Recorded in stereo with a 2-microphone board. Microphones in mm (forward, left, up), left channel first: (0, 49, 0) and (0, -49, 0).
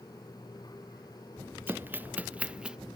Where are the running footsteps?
20° right (ahead or behind); by 2.8 s 10° right (ahead or behind).